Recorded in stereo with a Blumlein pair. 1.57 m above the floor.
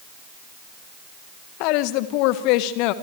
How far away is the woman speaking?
About 1.4 m.